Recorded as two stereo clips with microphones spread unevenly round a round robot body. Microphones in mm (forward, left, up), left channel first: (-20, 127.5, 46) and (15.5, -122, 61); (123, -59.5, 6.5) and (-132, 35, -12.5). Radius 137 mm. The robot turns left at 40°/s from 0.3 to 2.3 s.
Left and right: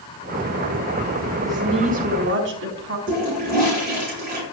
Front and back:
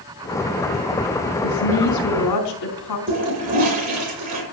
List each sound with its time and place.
1.4 s a woman speaking: straight ahead, 4.5 m; by 3.0 s 35° right, 4.5 m
3.1 s a toilet flushing: 140° right, 8.5 m